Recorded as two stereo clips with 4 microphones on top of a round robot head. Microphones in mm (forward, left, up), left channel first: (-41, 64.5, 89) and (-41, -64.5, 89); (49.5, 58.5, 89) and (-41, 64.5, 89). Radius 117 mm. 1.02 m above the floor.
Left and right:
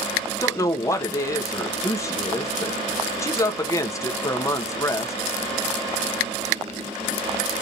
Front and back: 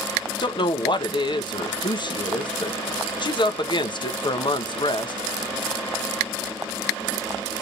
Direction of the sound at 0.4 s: 25° left.